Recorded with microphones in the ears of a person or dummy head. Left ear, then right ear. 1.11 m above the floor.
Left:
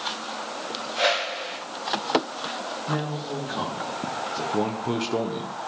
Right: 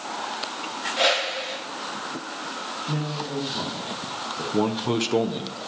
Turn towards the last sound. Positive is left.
turn(degrees=-5)  # may be behind; listen again after turning